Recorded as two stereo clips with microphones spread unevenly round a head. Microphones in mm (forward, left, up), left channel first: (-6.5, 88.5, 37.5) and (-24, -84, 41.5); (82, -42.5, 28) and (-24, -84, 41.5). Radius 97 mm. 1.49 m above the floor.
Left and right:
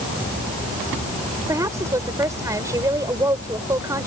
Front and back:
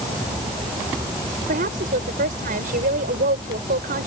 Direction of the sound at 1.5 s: 170° right.